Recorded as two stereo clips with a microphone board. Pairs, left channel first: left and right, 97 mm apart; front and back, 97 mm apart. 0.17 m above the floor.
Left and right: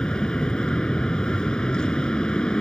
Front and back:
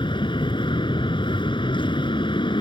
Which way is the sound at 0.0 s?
10° left.